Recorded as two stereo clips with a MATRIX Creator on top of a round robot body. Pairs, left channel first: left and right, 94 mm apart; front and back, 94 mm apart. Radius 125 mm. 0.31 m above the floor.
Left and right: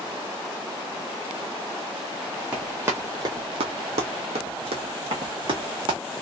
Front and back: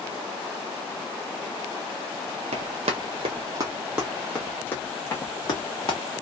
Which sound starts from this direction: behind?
Running footsteps, at 2.5 s.